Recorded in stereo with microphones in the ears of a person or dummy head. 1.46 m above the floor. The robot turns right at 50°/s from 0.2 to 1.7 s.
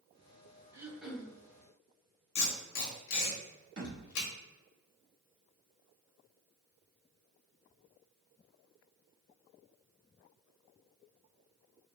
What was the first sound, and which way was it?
Throat clearing, 15° right.